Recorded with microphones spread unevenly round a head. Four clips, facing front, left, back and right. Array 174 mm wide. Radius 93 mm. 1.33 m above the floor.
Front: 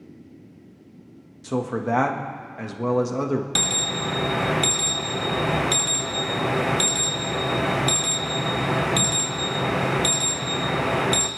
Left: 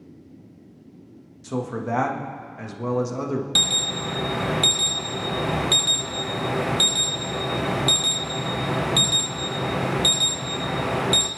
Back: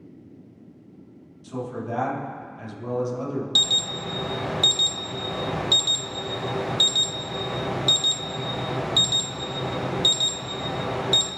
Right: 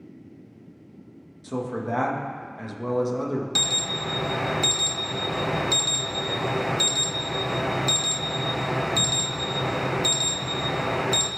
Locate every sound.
1.4 s a man speaking: 5° left, 1.6 m
3.5 s an alarm: 15° left, 1.1 m